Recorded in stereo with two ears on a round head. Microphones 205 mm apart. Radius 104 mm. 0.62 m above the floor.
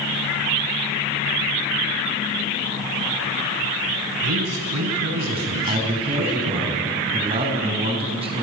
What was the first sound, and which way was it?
A man speaking, 75° right (ahead or behind).